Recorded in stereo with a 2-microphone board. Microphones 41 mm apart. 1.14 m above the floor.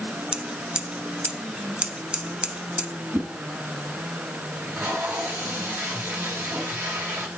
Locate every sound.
0.3 s scissors: 25° right (ahead or behind), 1.2 m
3.1 s a whoosh: 50° right (ahead or behind), 4.5 m
4.5 s tape being pulled: 85° right, 5 m